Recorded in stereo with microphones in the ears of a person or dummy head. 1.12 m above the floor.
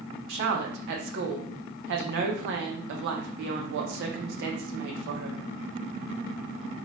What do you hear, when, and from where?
0.3 s a woman speaking: 55° right (ahead or behind), 0.6 m